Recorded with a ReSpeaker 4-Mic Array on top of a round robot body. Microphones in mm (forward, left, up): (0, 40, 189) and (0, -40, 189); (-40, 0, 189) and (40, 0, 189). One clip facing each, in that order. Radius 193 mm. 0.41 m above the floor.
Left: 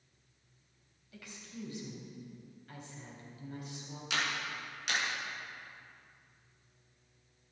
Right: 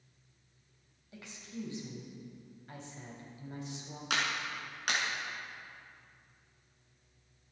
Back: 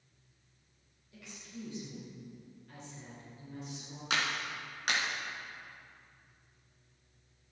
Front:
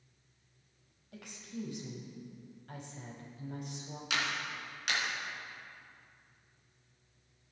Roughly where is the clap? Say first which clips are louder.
Right 1 dB, back 2 dB; behind right.